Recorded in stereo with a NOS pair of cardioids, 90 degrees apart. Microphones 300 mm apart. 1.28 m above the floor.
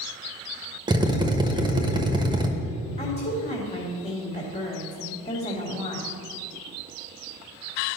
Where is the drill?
15° right, 1.2 m.